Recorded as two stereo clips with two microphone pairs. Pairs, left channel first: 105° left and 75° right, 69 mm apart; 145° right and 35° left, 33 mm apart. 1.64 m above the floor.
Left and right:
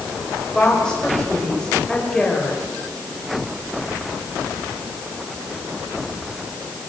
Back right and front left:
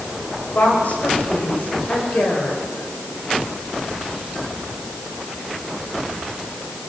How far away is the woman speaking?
About 9 m.